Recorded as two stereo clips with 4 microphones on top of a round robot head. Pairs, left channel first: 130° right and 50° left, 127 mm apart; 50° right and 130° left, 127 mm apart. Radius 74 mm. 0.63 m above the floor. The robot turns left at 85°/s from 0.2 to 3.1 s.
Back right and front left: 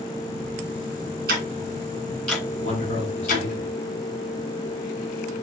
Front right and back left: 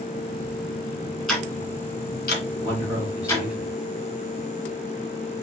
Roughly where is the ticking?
Ahead left.